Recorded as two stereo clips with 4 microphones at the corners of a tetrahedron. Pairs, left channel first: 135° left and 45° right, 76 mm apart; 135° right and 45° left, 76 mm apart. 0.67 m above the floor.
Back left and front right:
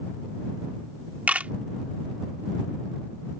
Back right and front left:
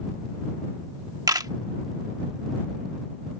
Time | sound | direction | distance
1.3 | a camera shutter | 20° left | ?